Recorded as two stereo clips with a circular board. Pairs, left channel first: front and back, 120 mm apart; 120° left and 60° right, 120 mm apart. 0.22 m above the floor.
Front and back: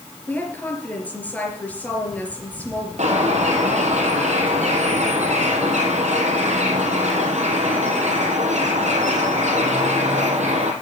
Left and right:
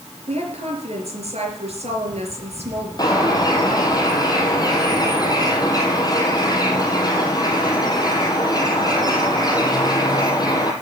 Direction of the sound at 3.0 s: 175° left.